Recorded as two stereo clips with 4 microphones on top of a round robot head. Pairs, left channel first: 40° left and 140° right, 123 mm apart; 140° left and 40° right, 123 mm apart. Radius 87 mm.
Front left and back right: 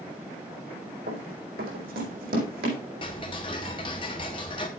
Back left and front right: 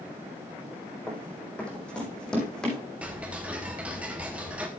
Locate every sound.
1.1 s running footsteps: 140° right, 3.5 m; by 2.8 s 135° right, 4.5 m
3.0 s ticking: 35° left, 0.8 m